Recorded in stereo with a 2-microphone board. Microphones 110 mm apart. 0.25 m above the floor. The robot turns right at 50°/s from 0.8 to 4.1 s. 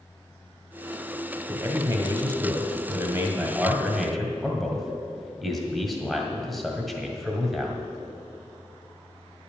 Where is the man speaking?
20° right (ahead or behind), 1.6 m; by 7.8 s centre (ahead or behind), 1.6 m.